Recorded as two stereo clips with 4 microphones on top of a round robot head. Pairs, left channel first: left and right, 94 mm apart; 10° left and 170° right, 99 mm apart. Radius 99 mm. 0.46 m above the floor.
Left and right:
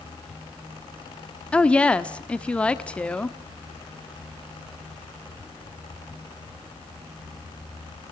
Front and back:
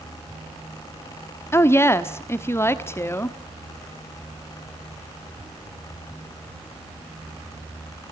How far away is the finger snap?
No finger snap in this recording.